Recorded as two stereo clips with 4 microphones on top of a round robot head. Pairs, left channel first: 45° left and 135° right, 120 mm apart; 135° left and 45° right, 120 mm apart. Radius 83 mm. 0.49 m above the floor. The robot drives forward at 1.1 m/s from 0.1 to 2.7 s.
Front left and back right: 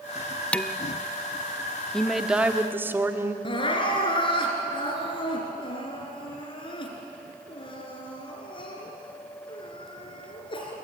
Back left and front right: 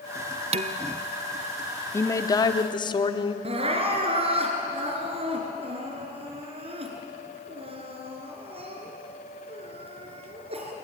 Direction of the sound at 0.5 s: 35° right.